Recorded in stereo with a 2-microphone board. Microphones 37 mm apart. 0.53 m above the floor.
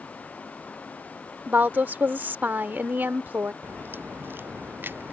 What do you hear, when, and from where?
1.5 s a woman speaking: 60° right (ahead or behind)
3.6 s a crack: 65° right (ahead or behind)